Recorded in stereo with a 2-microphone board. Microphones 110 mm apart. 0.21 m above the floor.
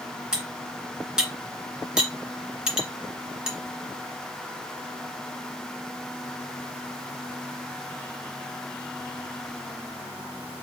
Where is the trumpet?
No trumpet in this recording.